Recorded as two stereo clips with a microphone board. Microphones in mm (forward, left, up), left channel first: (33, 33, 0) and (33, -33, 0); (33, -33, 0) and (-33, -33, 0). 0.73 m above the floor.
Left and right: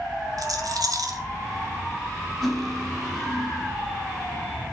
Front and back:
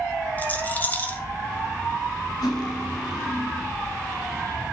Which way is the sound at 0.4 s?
65° right.